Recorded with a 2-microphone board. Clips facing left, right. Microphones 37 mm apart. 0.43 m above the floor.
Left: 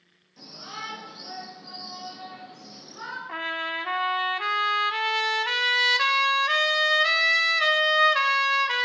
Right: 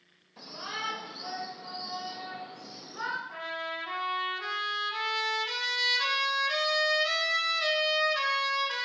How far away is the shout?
About 2 m.